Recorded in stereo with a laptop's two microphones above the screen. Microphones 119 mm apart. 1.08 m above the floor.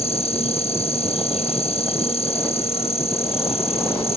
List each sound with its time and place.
0.0 s an insect: 60° left (ahead or behind)